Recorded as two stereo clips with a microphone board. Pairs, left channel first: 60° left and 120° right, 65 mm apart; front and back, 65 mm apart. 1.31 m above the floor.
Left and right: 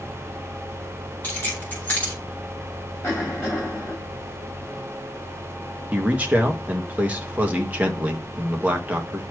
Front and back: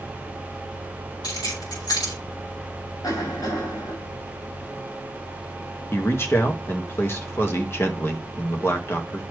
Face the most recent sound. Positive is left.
turn(degrees=-55)